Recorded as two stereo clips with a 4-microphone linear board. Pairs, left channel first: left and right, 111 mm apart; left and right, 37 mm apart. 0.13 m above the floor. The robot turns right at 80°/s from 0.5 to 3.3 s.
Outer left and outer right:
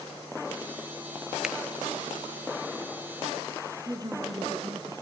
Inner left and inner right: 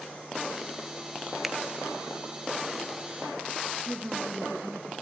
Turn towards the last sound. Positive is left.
turn(degrees=-35)  # may be behind; listen again after turning